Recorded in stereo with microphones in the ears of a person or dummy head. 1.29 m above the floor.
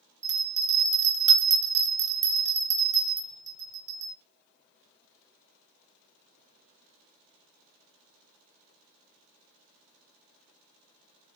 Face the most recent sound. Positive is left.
turn(degrees=-35)  # may be behind; listen again after turning